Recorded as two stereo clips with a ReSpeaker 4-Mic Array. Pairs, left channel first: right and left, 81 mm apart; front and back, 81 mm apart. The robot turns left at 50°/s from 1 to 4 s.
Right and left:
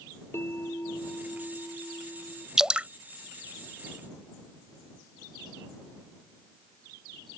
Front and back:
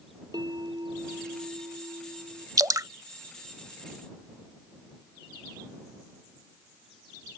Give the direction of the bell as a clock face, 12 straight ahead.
5 o'clock.